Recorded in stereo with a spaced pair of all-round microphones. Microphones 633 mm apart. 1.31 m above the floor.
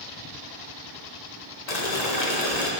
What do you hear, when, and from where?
1.7 s boiling: 80° left, 1.6 m